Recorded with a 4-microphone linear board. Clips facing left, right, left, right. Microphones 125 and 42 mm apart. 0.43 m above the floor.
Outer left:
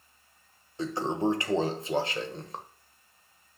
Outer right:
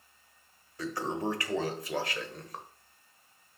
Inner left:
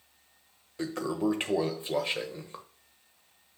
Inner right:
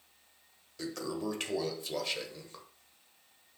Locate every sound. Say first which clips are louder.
0.8 s a toilet flushing: outer left 5 dB, inner left 6 dB; 25° left (ahead or behind), 1.2 m